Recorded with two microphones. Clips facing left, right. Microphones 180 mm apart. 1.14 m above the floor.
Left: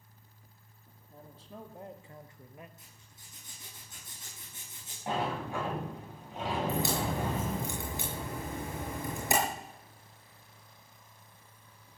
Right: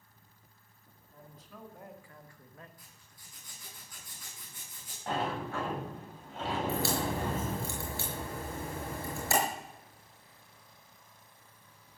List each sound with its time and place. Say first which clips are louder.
1.1 s a man speaking: left 4 dB; 30° left (ahead or behind), 2.5 m; by 2.7 s 15° left (ahead or behind), 1.2 m
2.8 s a zipper: left 1 dB; 25° left (ahead or behind), 8 m
5.1 s a sliding door: left 1 dB; 15° left (ahead or behind), 8.5 m
6.7 s a crack: even; 20° left (ahead or behind), 5.5 m